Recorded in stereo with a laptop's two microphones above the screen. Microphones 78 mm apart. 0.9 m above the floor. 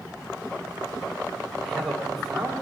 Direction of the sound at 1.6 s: Centre (ahead or behind).